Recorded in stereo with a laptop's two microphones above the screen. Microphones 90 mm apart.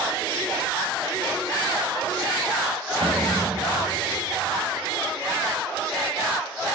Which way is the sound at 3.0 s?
75° right (ahead or behind).